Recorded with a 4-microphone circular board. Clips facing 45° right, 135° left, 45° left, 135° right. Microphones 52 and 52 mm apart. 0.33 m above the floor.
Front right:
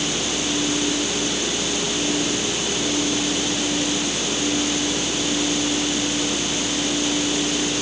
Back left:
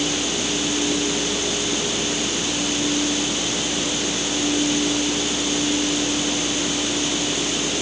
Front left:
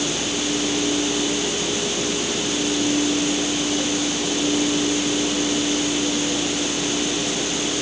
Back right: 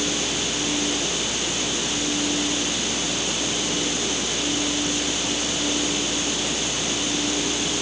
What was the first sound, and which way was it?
Only background noise.